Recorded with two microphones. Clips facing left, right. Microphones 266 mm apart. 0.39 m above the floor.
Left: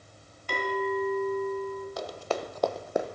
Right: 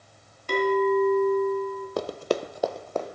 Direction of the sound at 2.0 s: 60° right (ahead or behind).